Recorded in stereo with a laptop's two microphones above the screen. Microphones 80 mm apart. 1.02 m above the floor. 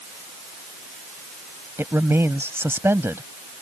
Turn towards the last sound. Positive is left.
turn(degrees=-30)  # may be behind; listen again after turning